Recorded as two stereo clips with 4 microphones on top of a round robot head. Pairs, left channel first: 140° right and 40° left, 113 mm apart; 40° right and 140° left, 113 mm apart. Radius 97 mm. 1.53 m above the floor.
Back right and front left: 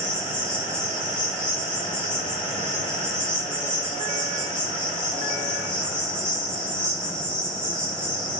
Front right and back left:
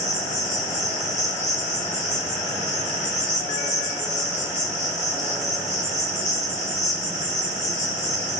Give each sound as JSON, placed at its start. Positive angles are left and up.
{"t": 0.0, "sound": "an insect", "azimuth_deg": -60, "distance_m": 8.0}